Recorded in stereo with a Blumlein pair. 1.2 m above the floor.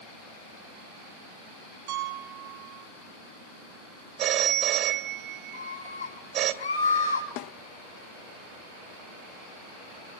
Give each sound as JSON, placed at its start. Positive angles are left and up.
{"t": 1.9, "sound": "a piano", "azimuth_deg": -45, "distance_m": 2.0}
{"t": 4.2, "sound": "a phone ringing", "azimuth_deg": -30, "distance_m": 2.5}
{"t": 5.5, "sound": "a scream", "azimuth_deg": 65, "distance_m": 6.5}
{"t": 7.4, "sound": "a snare drum", "azimuth_deg": 40, "distance_m": 0.7}